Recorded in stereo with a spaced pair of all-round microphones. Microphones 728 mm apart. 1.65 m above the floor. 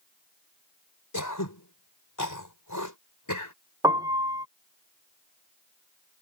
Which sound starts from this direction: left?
Throat clearing, at 1.1 s.